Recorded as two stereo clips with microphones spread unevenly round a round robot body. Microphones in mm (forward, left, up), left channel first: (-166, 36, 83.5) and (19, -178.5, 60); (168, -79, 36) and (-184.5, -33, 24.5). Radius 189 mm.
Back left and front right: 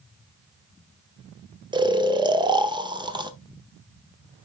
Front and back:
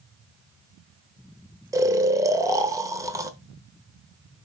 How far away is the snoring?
About 1.0 m.